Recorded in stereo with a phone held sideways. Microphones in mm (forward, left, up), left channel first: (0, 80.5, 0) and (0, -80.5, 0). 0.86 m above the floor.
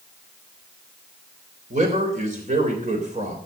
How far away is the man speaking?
About 3.5 m.